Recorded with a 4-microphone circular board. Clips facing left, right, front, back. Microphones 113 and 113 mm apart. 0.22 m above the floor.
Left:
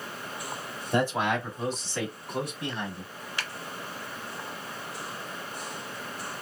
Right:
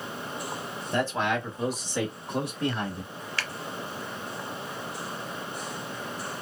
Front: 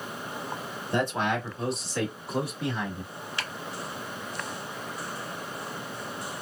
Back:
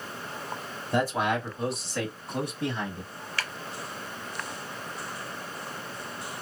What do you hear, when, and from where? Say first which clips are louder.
0.9 s a man speaking: left 1 dB, back 1 dB; 115° left, 1.0 m; by 3.1 s 80° right, 1.4 m
3.4 s a finger snap: right 1 dB, back 2 dB; 40° left, 0.8 m